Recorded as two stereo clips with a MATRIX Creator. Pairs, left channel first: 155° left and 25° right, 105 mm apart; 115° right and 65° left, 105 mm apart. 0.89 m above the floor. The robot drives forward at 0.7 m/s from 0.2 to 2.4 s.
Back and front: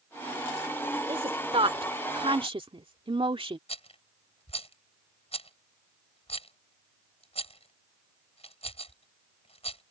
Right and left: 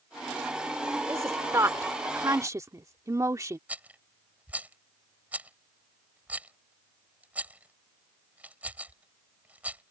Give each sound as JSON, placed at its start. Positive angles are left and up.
{"t": 1.1, "sound": "a woman speaking", "azimuth_deg": 5}
{"t": 3.7, "sound": "a rattle", "azimuth_deg": 140}